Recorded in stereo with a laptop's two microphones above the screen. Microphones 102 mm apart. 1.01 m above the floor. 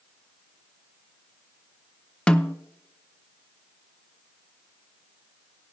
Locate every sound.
2.3 s a snare drum: 10° left (ahead or behind), 0.5 m